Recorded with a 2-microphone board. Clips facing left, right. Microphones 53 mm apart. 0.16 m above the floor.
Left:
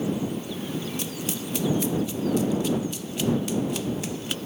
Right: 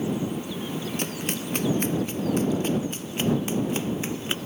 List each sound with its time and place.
1.0 s running footsteps: 45° right (ahead or behind); by 4.4 s 30° right (ahead or behind)